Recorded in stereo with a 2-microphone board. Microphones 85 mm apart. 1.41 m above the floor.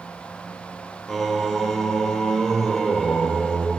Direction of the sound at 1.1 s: Centre (ahead or behind).